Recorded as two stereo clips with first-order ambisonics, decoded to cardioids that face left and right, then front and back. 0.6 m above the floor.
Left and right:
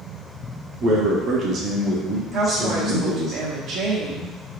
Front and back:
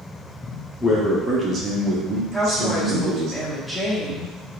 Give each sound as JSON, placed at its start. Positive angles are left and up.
{"t": 0.8, "sound": "a man speaking", "azimuth_deg": -75, "distance_m": 0.7}
{"t": 2.3, "sound": "a woman speaking", "azimuth_deg": -100, "distance_m": 0.7}